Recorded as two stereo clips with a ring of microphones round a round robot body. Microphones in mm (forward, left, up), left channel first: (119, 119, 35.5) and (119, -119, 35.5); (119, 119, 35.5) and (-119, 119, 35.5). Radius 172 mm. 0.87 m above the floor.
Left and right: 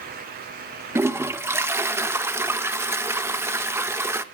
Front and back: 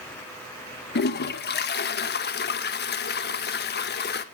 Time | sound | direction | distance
0.9 | a toilet flushing | 15° right | 1.3 m